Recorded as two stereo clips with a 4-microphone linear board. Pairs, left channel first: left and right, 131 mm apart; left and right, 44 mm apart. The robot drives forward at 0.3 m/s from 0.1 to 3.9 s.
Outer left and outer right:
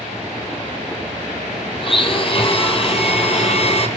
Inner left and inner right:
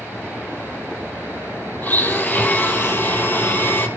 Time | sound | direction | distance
1.8 | a blender | 40° left (ahead or behind) | 3.5 m